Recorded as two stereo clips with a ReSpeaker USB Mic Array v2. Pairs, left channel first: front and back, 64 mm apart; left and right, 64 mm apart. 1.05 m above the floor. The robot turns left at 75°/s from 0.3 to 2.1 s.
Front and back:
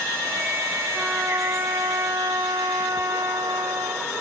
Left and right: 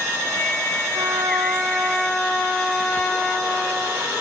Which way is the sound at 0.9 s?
105° right.